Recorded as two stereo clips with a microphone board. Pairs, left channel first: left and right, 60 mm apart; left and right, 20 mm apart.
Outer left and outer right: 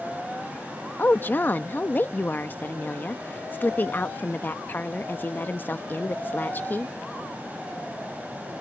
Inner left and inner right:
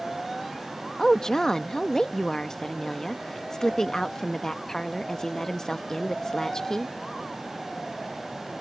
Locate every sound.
1.0 s a woman speaking: 30° left (ahead or behind)